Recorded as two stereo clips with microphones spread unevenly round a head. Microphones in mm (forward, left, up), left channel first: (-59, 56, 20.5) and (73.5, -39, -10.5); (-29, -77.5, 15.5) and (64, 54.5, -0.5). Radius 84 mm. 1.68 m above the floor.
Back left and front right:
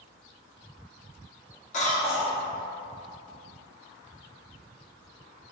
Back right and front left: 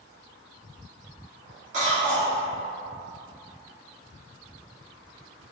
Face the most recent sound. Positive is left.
turn(degrees=105)